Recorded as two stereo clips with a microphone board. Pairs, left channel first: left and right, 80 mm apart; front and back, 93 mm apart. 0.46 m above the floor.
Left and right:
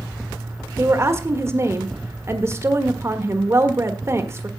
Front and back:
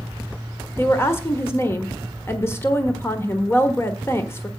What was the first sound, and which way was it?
A woman speaking, 50° right.